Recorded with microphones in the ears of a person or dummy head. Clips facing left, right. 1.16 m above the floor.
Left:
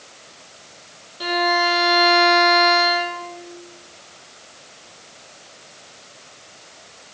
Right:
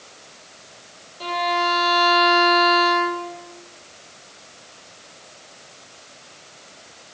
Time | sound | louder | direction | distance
1.2 | a violin | left 3 dB | 15° left (ahead or behind) | 1.0 m